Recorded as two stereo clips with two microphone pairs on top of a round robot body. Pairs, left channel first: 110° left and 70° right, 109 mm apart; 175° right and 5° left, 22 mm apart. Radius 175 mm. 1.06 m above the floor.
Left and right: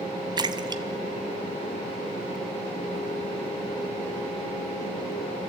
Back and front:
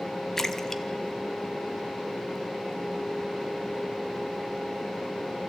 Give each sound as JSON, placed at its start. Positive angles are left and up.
{"t": 0.4, "sound": "a splash", "azimuth_deg": -110, "distance_m": 1.2}